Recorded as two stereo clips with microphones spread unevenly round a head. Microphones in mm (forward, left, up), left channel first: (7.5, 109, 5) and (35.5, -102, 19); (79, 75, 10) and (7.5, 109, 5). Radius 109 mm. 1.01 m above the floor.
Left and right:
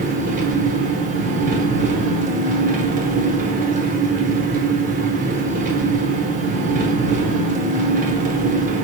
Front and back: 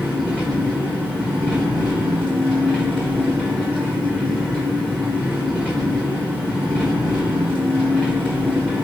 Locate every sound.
0.0 s an engine running: 100° right, 0.8 m